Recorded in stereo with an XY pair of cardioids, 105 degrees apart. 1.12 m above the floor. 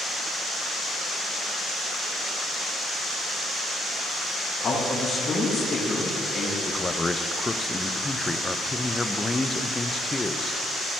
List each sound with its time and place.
4.6 s a man speaking: 45° left, 3.5 m
6.7 s a man speaking: 20° left, 0.6 m